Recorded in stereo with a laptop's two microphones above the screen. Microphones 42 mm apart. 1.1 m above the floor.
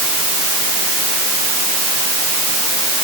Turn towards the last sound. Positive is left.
No sound to turn to.